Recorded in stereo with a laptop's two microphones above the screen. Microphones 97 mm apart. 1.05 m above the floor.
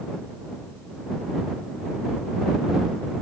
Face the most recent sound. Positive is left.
No sound to turn to.